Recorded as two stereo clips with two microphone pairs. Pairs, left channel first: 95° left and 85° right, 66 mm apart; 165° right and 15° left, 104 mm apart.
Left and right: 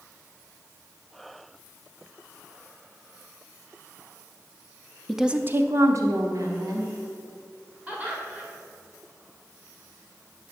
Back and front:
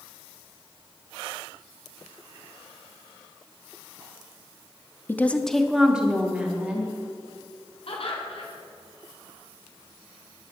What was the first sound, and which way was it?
A woman speaking, 175° left.